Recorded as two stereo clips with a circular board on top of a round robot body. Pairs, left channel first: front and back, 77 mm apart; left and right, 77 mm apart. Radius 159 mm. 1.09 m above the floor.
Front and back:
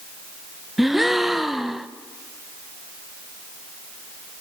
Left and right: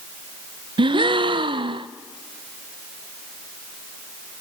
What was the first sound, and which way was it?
A gasp, 95° right.